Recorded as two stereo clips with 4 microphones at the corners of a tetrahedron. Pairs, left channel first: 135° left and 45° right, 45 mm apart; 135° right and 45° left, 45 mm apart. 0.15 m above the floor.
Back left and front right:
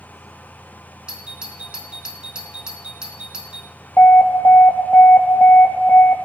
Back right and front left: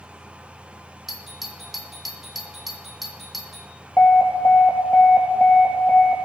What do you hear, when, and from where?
1.1 s a doorbell: 40° right, 1.5 m
4.0 s an alarm: 175° left, 2.5 m